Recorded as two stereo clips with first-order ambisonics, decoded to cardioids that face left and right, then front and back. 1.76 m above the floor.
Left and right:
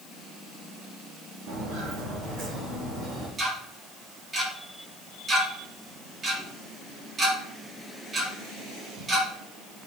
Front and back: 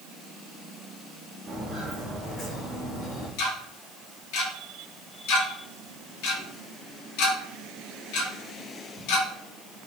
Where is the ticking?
20° right, 2.5 m.